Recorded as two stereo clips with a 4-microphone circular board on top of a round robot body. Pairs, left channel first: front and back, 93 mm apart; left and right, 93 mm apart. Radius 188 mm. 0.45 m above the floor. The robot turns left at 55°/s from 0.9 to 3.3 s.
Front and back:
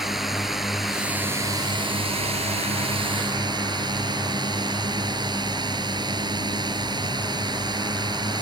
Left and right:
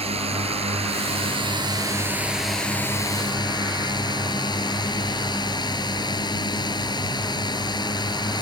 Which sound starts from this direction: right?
A drone, at 0.0 s.